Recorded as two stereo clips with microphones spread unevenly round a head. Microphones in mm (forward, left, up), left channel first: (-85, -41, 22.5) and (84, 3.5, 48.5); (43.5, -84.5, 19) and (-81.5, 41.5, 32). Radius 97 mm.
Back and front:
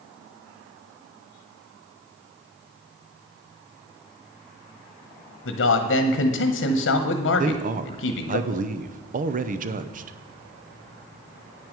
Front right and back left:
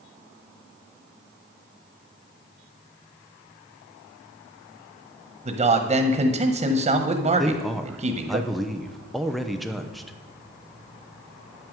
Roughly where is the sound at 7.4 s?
Ahead left.